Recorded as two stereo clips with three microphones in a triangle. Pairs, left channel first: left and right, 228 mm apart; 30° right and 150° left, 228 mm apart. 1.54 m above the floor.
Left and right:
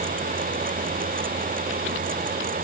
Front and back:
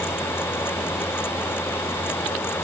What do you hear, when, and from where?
Only background noise.